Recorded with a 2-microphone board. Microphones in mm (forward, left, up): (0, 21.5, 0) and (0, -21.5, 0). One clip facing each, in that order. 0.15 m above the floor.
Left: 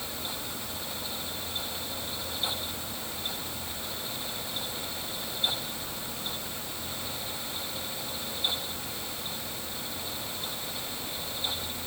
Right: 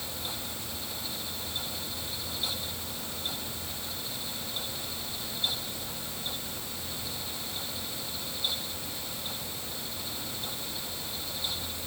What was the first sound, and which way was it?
Only background noise.